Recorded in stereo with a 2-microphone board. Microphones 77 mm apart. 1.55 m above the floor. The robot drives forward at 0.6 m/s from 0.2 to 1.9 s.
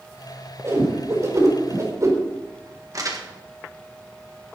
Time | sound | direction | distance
0.6 | a whoosh | 40° right (ahead or behind) | 5 m
2.9 | crumpling | 45° right (ahead or behind) | 1.7 m